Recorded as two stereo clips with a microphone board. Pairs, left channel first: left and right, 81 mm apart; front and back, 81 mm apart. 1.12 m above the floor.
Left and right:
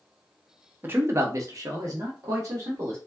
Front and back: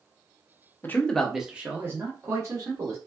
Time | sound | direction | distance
0.8 | a man speaking | 45° right | 0.6 m